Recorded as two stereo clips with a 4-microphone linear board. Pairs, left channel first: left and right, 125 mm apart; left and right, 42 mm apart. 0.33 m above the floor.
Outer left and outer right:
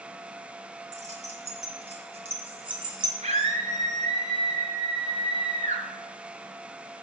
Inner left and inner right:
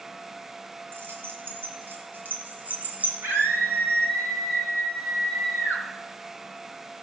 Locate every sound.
0.9 s keys jangling: 65° right (ahead or behind), 3 m; by 3.1 s 35° right (ahead or behind), 2.5 m
3.2 s a scream: 65° right (ahead or behind), 3 m